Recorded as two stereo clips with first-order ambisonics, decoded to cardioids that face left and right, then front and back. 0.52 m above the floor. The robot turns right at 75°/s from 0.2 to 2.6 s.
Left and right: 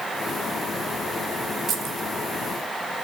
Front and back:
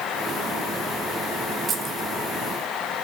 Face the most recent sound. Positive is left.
turn(degrees=-60)